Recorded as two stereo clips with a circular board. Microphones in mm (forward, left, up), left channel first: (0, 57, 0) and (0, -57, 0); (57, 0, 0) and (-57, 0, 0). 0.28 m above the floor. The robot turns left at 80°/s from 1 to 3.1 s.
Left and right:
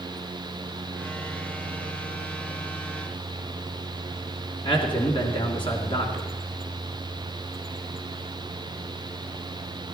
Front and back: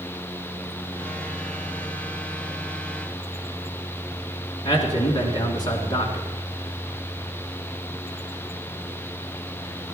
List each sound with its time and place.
4.7 s a man speaking: 50° left, 3 m